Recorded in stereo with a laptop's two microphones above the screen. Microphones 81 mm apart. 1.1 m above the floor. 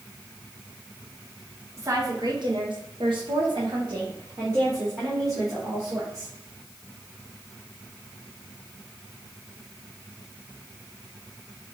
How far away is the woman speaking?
About 1.0 m.